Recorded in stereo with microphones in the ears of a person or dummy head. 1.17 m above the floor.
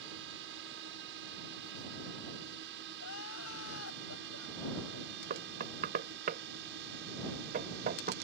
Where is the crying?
85° left.